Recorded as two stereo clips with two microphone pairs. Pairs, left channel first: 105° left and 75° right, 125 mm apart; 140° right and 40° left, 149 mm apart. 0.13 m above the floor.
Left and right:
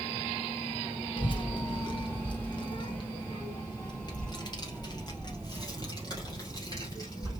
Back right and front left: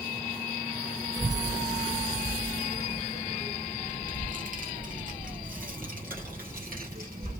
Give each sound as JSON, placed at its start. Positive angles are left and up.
{"t": 1.2, "sound": "a child speaking", "azimuth_deg": 90, "distance_m": 1.4}